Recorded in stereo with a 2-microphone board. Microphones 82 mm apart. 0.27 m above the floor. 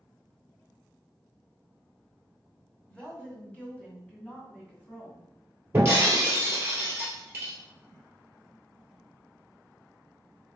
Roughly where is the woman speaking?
Centre.